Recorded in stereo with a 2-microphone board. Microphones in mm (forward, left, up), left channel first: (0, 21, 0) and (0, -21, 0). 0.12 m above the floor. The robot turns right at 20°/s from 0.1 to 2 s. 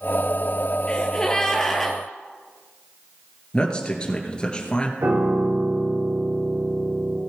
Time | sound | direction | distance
0.9 | a gasp | 25° left (ahead or behind) | 1.4 m
3.5 | a man speaking | 25° left (ahead or behind) | 2 m
5.0 | a piano | 80° right | 5.5 m